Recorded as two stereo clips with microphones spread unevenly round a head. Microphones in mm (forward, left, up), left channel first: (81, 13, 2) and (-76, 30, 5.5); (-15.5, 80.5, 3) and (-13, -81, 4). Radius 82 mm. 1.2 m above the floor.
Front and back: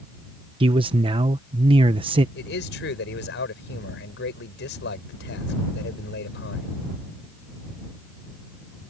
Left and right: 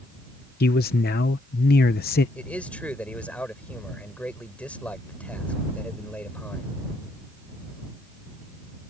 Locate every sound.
0.6 s a man speaking: 115° left
2.4 s a man speaking: 10° left